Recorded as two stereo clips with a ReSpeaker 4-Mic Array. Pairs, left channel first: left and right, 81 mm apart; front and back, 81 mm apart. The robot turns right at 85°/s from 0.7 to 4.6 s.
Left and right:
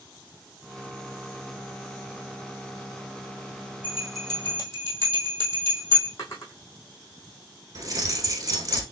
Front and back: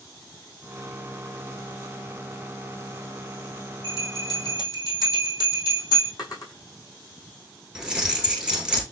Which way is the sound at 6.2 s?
40° left.